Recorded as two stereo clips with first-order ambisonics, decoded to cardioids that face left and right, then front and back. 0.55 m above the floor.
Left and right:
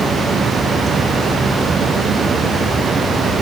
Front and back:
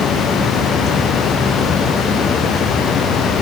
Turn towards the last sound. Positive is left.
No sound to turn to.